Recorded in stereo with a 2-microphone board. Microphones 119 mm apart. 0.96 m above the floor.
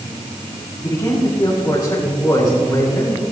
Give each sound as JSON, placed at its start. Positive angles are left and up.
{"t": 0.8, "sound": "a man speaking", "side_deg": 35, "distance_m": 6.0}